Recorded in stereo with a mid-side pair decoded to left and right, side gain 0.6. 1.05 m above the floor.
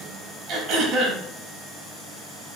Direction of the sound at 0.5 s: 55° right.